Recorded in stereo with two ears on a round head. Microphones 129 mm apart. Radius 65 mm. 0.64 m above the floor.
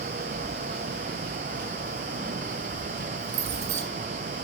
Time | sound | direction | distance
0.3 | keys jangling | 55° right (ahead or behind) | 5.5 m